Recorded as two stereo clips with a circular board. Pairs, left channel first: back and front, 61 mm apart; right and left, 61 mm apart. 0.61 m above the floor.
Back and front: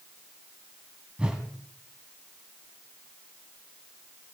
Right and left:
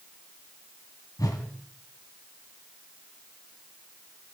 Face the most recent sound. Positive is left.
turn(degrees=-75)